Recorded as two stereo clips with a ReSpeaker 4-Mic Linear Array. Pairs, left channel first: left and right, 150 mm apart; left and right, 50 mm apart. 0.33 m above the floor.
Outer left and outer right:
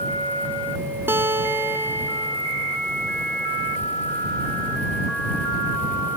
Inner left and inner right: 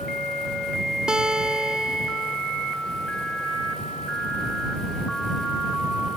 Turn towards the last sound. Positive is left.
turn(degrees=-15)  # may be behind; listen again after turning